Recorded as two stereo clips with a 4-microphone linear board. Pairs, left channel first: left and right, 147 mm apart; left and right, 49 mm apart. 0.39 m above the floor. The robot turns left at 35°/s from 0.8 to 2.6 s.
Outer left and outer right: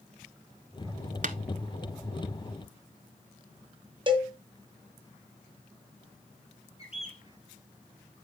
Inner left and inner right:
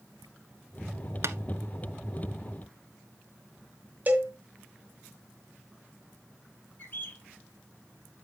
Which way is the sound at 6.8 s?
45° left (ahead or behind).